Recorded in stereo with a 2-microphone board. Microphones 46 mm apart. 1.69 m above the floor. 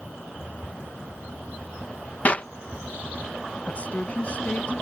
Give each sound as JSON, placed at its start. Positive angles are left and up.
{"t": 2.2, "sound": "a clap", "side_deg": 35}
{"t": 3.6, "sound": "a woman speaking", "side_deg": 30}